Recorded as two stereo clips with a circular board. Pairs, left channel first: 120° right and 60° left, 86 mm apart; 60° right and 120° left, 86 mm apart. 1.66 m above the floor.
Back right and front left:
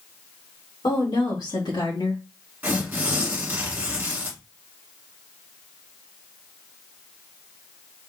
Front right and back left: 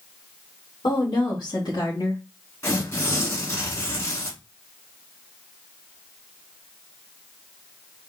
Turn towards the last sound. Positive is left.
turn(degrees=-10)